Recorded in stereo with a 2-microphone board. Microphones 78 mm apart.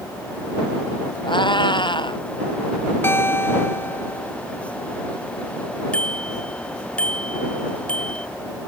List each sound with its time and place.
1.3 s a cat meowing: 90° left
3.0 s a guitar: 30° left (ahead or behind)
5.9 s a bicycle bell: 15° left (ahead or behind)